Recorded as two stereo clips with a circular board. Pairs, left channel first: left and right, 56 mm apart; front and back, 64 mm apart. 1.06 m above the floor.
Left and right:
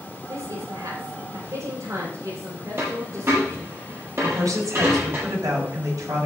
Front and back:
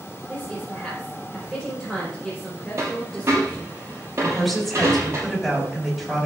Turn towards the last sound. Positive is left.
turn(degrees=-90)